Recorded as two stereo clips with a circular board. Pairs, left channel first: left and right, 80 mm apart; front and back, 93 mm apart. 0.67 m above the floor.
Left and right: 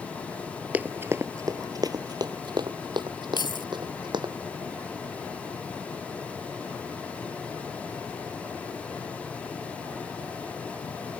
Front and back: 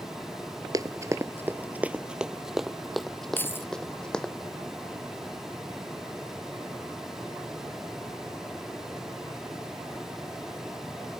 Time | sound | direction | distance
0.7 | running footsteps | 155° right | ?
3.4 | keys jangling | 70° left | ?